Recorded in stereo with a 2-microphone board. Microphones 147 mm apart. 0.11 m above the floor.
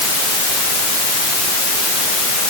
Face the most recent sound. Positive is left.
No sound to turn to.